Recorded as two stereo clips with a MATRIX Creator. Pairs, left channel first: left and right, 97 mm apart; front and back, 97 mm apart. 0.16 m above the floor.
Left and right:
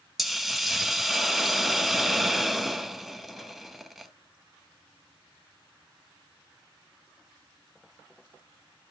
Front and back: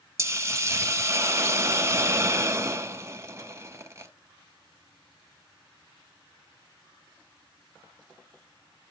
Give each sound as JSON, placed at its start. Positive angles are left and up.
{"t": 0.2, "sound": "a hiss", "azimuth_deg": -175, "distance_m": 0.6}